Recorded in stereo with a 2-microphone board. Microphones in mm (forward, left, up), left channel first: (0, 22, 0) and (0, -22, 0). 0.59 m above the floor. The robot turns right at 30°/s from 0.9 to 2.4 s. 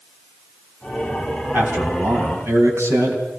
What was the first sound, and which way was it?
A man speaking, 50° right (ahead or behind).